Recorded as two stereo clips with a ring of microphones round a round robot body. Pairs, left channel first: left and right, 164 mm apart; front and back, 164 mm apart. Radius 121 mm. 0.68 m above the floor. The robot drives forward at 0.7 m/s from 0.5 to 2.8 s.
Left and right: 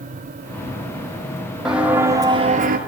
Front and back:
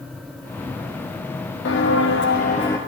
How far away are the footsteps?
About 2.0 m.